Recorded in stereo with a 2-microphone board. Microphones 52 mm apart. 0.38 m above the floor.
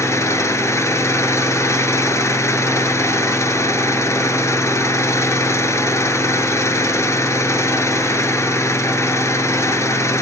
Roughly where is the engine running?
Left.